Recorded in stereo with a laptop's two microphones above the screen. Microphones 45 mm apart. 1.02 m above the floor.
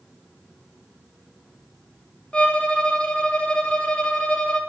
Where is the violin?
25° left (ahead or behind), 0.9 m.